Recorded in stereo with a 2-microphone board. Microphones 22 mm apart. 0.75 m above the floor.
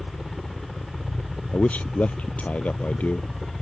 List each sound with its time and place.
0.0 s a helicopter: 10° left (ahead or behind)
1.5 s a man speaking: 80° left